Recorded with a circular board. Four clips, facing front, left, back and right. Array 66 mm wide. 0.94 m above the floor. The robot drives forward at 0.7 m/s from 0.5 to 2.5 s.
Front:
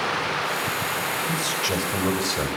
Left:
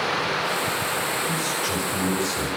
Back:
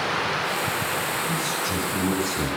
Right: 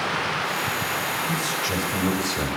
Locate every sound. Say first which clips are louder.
1.3 s a man speaking: even, front 1 dB; straight ahead, 5 m